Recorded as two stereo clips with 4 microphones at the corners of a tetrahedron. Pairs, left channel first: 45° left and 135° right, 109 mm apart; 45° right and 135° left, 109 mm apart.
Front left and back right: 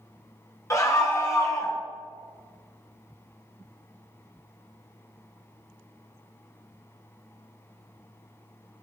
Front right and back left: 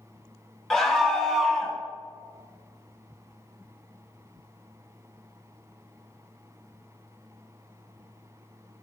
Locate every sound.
0.7 s a scream: 40° left, 1.4 m